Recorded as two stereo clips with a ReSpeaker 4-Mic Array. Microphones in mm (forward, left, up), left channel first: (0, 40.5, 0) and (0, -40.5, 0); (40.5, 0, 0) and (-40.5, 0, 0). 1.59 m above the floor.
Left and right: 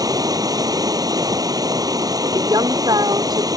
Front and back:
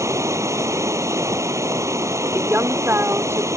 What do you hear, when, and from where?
0.0 s running water: 130° right
2.3 s a woman speaking: 120° right